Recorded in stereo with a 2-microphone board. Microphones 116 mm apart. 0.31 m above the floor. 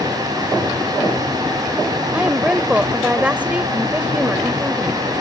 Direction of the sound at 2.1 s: 10° right (ahead or behind).